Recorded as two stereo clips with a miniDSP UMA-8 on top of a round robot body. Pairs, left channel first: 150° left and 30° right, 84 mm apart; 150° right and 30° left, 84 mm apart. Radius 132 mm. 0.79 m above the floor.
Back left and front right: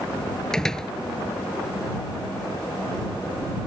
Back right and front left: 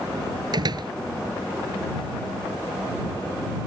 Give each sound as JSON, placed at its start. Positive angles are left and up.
{"t": 0.5, "sound": "a door slam", "azimuth_deg": 65}